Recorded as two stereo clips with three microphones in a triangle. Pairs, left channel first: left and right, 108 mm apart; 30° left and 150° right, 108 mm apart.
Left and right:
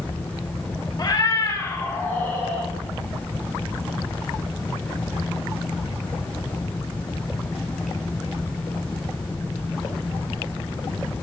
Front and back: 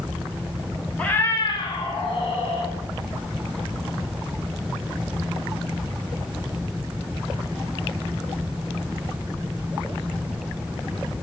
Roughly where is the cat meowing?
Left.